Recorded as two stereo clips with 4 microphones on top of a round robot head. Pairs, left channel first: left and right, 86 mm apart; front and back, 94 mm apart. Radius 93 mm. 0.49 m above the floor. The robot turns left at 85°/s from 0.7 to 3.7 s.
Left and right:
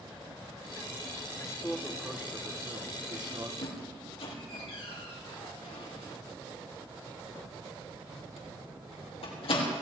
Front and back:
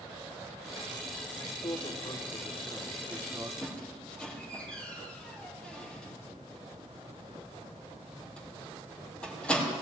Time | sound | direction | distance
1.4 | a man speaking | 50° left | 1.7 m
3.6 | a squeak | 90° left | 4 m